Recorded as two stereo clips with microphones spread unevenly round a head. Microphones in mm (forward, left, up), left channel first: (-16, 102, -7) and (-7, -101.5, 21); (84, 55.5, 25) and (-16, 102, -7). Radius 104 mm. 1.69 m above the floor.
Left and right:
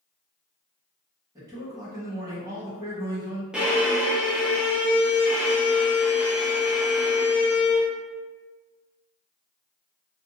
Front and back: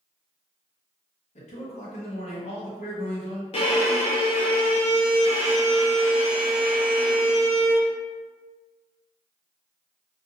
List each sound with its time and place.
1.4 s a man speaking: 15° right, 1.1 m
3.5 s a violin: 5° right, 0.6 m